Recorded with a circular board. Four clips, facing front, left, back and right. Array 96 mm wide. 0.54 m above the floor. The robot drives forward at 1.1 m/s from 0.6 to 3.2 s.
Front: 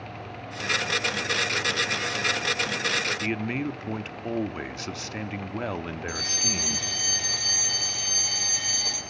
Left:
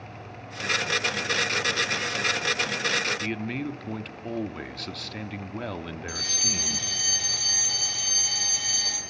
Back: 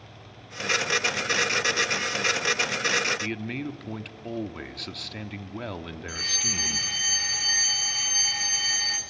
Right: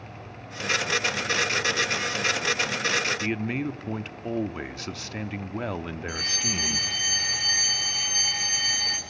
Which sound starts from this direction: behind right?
A fire alarm, at 6.1 s.